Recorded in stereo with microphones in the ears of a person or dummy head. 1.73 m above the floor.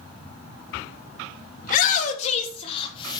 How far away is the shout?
About 3 m.